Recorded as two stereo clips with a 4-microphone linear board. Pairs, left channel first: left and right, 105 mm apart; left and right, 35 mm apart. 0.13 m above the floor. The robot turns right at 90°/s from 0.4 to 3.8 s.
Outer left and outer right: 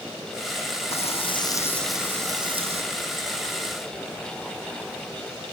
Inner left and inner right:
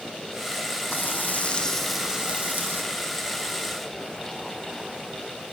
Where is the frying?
90° left, 4 m; by 2.8 s 100° right, 4 m.